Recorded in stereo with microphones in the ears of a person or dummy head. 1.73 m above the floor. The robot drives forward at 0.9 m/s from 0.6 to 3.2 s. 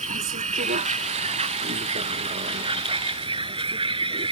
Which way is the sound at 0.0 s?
40° right (ahead or behind).